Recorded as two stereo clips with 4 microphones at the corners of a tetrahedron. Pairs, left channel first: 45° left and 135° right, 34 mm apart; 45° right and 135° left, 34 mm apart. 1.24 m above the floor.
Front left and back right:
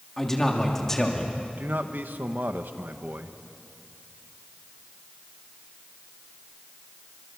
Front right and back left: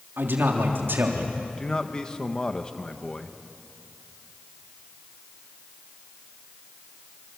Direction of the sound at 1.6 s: 115° right.